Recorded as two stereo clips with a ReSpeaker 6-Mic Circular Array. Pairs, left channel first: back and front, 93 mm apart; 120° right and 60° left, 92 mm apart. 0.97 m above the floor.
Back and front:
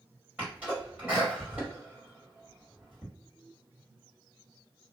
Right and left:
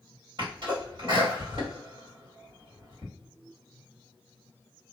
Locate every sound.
0.4 s a sneeze: 80° left, 1.6 m